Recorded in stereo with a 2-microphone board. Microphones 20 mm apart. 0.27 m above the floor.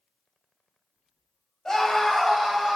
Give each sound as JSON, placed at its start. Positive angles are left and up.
{"t": 1.6, "sound": "a scream", "side_deg": 20, "distance_m": 1.1}